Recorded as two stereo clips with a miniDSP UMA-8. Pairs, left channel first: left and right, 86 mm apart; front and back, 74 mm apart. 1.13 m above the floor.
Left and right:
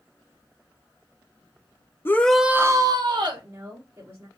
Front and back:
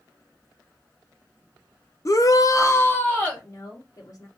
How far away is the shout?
About 0.8 m.